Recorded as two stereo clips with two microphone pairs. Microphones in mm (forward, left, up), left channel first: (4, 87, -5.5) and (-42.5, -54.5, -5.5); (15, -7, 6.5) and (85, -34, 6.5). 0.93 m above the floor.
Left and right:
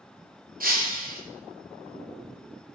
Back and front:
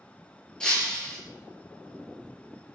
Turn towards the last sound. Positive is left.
turn(degrees=-120)